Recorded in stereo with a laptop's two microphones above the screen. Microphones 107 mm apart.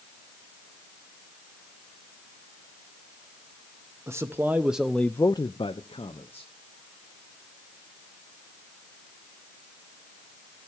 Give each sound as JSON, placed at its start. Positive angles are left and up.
{"t": 4.1, "sound": "a man speaking", "side_deg": -25, "distance_m": 1.1}